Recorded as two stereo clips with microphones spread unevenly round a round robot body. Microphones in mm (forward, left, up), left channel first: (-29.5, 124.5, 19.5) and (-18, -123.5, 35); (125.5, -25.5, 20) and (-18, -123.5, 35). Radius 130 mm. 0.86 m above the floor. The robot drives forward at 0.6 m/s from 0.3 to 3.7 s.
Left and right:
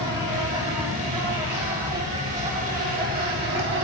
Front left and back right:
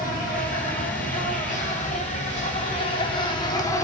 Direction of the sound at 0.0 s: 10° right.